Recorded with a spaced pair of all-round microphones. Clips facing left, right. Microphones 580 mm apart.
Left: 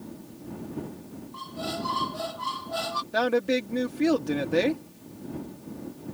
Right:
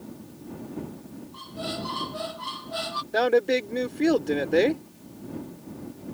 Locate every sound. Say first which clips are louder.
1.3 s a squeak: even; 65° left (ahead or behind)
3.1 s a woman speaking: right 3 dB; 30° left (ahead or behind)